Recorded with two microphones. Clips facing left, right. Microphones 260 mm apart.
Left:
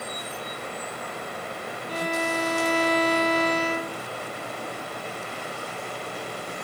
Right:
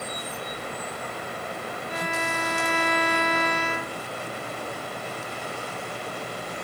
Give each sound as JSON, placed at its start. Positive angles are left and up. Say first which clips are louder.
{"t": 1.9, "sound": "a violin", "louder": "left 6 dB", "side_deg": 40, "distance_m": 0.8}